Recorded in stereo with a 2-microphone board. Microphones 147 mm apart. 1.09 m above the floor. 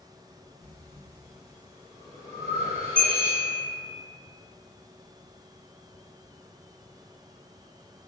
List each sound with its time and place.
0.6 s breathing: 45° right (ahead or behind), 0.9 m
3.0 s a bell: 10° left (ahead or behind), 0.7 m